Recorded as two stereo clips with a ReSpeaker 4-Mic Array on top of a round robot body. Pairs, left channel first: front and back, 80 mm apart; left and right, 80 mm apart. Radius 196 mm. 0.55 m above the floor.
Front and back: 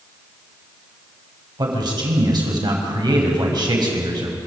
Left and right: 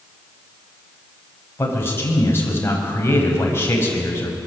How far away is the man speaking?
About 5.5 m.